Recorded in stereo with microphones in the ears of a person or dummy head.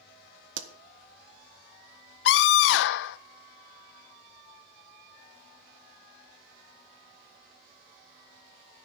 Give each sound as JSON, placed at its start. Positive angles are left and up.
{"t": 0.6, "sound": "a pop", "side_deg": -75, "distance_m": 1.3}
{"t": 2.2, "sound": "a scream", "side_deg": 70, "distance_m": 1.0}